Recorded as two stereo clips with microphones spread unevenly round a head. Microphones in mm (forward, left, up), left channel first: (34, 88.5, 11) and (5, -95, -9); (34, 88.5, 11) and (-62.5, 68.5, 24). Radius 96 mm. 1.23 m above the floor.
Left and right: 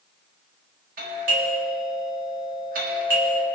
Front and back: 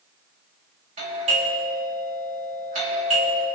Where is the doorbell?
145° right, 3.5 m.